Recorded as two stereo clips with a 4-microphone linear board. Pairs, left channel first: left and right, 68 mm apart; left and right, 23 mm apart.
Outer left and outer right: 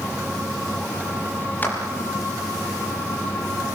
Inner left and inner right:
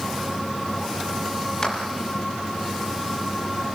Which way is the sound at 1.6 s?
30° left (ahead or behind).